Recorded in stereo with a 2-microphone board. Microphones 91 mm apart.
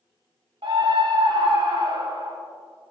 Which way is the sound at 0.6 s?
65° right (ahead or behind).